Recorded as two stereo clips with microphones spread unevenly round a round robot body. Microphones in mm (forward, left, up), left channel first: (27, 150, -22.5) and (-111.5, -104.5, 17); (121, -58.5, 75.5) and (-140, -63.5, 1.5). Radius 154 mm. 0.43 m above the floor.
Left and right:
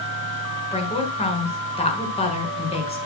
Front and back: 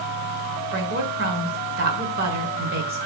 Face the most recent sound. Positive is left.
turn(degrees=130)